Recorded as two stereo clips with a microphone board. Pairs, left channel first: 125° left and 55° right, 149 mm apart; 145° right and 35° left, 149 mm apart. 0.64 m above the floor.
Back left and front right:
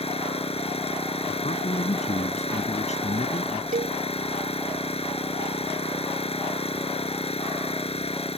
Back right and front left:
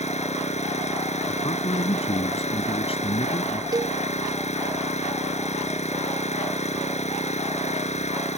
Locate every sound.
0.0 s an engine running: 170° left
1.3 s a man speaking: 165° left
3.7 s a cowbell: 30° right